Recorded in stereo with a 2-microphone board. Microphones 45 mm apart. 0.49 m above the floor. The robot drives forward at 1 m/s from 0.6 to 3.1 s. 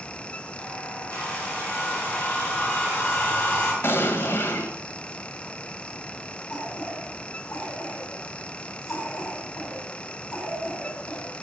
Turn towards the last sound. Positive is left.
turn(degrees=55)  # may be behind; listen again after turning